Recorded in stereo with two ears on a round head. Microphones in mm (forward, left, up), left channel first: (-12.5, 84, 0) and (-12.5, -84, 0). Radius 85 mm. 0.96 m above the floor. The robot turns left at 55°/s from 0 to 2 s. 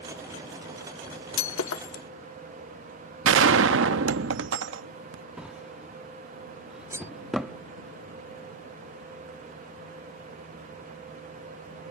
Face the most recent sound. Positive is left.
turn(degrees=-15)  # may be behind; listen again after turning